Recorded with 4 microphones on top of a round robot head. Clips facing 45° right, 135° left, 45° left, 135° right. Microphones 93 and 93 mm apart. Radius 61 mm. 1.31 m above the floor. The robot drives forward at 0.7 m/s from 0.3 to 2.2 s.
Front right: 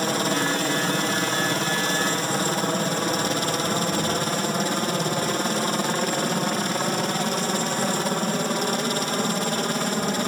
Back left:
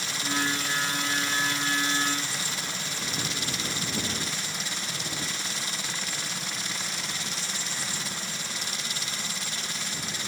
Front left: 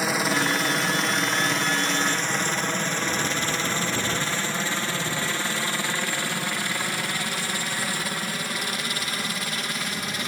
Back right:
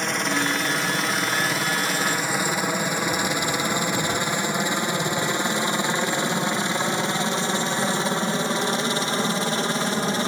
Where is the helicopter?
40° right; by 10.3 s 80° right.